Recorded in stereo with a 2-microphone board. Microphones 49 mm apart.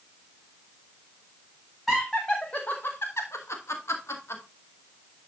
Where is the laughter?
5° left (ahead or behind), 1.5 m; by 4.4 s 70° left (ahead or behind), 2 m.